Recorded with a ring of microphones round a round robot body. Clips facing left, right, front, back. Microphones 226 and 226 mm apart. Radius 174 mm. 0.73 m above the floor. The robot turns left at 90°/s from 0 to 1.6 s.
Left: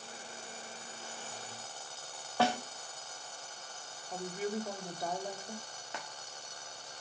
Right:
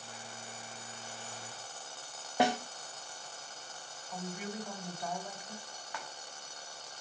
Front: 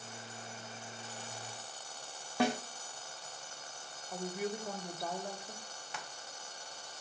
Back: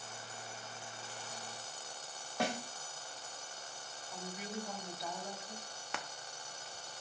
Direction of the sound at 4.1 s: 40° left.